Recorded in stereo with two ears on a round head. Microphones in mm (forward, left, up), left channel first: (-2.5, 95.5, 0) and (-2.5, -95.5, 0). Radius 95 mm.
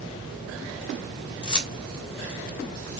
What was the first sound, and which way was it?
Keys jangling, 25° left (ahead or behind).